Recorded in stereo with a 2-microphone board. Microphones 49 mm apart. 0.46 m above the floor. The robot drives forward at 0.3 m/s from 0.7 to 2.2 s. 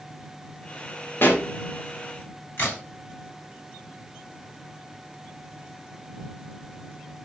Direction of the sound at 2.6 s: 45° left (ahead or behind).